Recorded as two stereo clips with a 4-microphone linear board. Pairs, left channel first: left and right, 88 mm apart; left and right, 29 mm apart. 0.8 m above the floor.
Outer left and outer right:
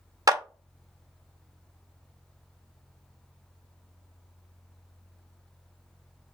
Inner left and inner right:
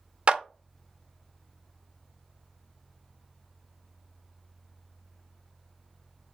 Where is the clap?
40° right (ahead or behind), 0.6 m.